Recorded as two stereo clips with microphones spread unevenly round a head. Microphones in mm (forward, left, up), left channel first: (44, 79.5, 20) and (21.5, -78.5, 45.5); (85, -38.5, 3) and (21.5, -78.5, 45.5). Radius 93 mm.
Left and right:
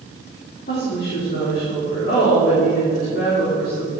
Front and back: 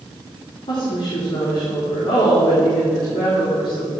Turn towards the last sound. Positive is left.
turn(degrees=55)